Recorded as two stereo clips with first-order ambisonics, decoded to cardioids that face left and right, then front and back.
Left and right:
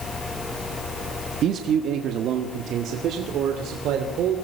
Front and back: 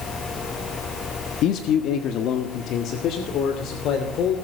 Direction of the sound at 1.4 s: 45° right.